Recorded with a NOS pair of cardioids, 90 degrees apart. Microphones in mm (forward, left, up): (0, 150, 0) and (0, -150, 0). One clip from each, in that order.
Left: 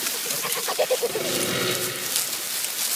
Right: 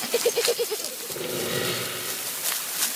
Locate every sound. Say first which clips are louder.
1.1 s sawing: left 4 dB; 70° left, 2.5 m